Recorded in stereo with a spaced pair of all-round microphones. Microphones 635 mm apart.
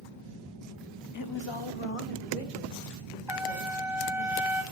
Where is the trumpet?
5° right (ahead or behind), 0.7 m.